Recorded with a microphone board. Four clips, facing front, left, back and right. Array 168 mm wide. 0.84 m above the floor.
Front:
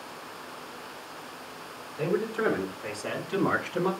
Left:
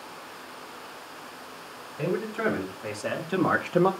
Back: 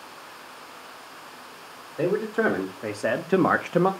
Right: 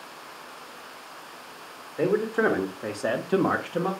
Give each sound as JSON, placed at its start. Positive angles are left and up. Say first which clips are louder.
{"t": 2.0, "sound": "a man speaking", "louder": "right 5 dB, back 4 dB", "azimuth_deg": -130, "distance_m": 2.5}